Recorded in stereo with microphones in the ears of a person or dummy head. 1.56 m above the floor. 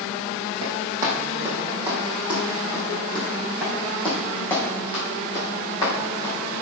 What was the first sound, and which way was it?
Running footsteps, 20° right (ahead or behind).